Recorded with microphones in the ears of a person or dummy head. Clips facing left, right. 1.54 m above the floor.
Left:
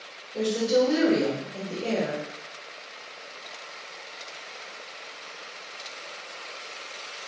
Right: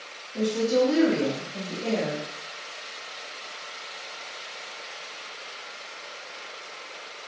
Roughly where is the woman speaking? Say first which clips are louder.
Even; left.